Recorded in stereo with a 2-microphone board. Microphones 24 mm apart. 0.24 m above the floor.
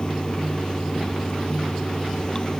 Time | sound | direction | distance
0.0 | running water | 30° left (ahead or behind) | ?